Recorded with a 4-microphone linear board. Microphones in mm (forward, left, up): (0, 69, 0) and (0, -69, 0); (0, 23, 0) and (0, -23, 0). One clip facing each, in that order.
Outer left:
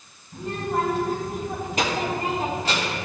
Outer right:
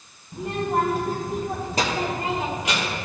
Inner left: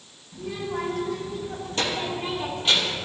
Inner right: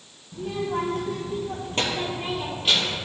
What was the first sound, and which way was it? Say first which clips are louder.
A child speaking: outer right 2 dB, inner right 3 dB; 65° right (ahead or behind).